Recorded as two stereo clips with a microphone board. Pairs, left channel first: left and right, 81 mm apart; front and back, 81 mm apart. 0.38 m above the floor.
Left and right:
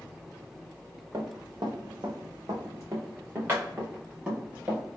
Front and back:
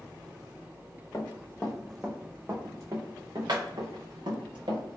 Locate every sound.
1.1 s running footsteps: 60° right, 1.2 m; by 4.8 s 165° right, 2.5 m